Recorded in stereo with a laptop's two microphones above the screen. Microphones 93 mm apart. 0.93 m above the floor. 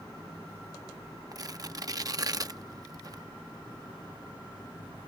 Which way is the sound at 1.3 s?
40° right (ahead or behind).